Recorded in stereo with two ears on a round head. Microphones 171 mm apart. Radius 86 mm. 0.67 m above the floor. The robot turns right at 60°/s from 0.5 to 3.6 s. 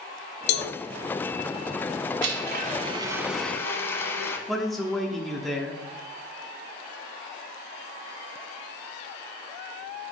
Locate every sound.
0.5 s a cowbell: 60° left (ahead or behind), 0.8 m; by 0.7 s 65° left (ahead or behind), 0.8 m
2.2 s a blender: 70° right, 1.3 m; by 4.4 s 15° left, 1.3 m
4.5 s a man speaking: centre (ahead or behind), 1.0 m